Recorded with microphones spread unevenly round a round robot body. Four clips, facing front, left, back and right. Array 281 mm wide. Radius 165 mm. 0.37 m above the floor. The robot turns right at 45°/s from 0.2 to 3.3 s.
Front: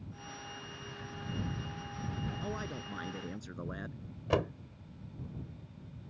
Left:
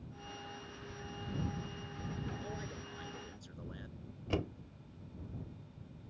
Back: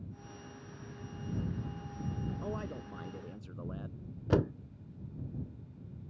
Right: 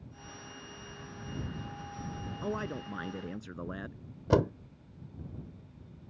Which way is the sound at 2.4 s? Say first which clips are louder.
Right 9 dB, even; 95° right.